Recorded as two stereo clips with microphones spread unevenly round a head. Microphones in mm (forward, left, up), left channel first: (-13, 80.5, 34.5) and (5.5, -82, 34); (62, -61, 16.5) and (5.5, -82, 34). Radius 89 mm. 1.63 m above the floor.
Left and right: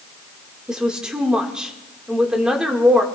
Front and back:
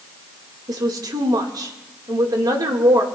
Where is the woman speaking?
170° right, 2 m.